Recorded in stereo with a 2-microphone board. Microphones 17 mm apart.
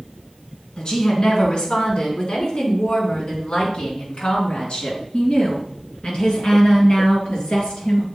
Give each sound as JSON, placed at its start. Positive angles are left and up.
{"t": 0.8, "sound": "a woman speaking", "side_deg": 55, "distance_m": 3.0}